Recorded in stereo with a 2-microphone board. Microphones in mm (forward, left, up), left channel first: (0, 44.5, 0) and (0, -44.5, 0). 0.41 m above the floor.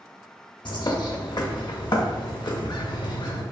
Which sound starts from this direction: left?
A bird, at 0.7 s.